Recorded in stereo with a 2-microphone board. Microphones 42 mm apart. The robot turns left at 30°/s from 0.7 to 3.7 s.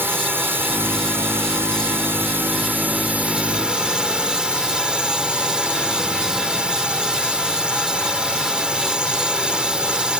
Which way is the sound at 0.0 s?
70° right.